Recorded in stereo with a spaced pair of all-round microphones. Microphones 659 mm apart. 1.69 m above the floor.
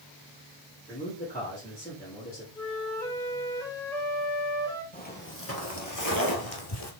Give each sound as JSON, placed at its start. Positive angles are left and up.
{"t": 0.9, "sound": "a man speaking", "side_deg": 10, "distance_m": 3.5}
{"t": 2.5, "sound": "a flute", "side_deg": 5, "distance_m": 2.5}
{"t": 4.9, "sound": "footsteps", "side_deg": 15, "distance_m": 2.0}